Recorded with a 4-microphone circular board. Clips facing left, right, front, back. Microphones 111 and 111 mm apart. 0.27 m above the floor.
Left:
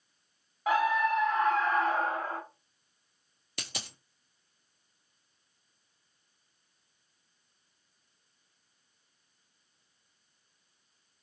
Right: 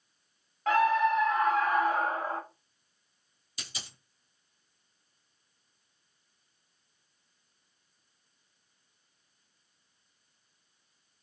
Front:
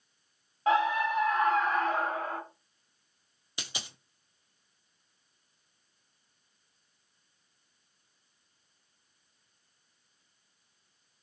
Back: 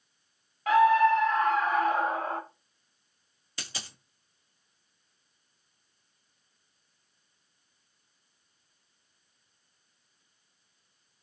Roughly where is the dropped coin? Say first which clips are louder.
Left 4 dB, even; left.